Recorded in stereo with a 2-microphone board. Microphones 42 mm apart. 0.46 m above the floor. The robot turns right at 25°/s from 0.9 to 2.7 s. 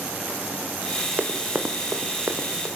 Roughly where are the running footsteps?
Right.